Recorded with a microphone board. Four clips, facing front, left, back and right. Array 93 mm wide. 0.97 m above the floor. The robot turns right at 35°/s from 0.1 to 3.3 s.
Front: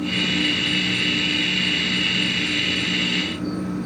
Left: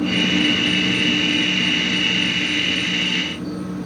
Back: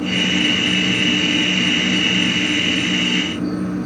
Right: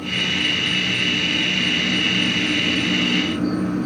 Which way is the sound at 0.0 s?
130° left.